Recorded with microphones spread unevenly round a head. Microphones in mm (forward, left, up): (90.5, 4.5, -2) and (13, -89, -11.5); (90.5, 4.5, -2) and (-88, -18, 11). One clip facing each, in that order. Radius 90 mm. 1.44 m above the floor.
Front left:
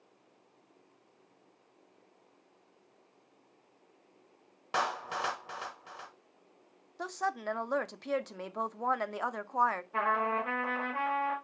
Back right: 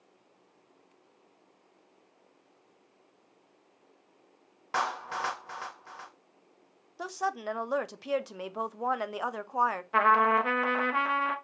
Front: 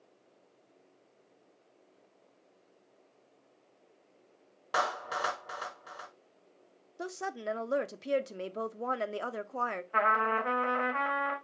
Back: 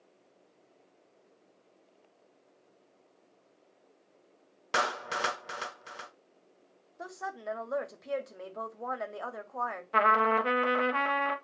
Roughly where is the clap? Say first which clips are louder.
Back right 1 dB, even; behind left.